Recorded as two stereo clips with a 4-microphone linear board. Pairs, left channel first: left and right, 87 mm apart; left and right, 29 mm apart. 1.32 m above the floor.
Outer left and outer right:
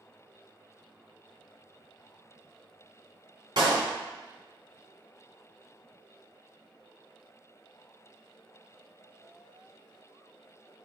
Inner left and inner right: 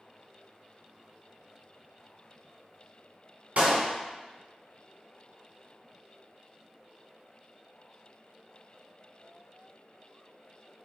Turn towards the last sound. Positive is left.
turn(degrees=-60)  # may be behind; listen again after turning